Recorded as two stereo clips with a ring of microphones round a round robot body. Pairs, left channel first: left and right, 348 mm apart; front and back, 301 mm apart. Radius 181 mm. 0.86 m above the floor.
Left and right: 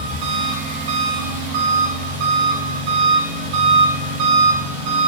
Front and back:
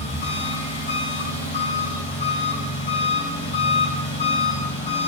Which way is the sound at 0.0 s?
70° right.